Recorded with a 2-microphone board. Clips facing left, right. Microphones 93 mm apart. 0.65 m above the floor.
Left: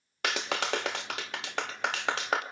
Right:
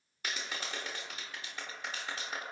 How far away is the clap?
About 1.4 m.